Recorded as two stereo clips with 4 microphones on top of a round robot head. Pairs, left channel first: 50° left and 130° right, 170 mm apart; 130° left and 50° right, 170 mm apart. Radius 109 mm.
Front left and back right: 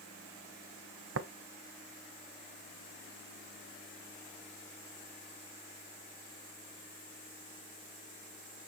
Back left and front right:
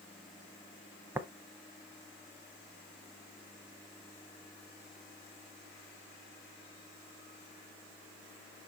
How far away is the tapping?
About 0.6 m.